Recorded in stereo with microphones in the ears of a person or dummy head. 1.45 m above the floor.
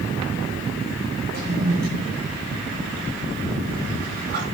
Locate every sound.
1.3 s a toilet flushing: 50° right (ahead or behind), 5 m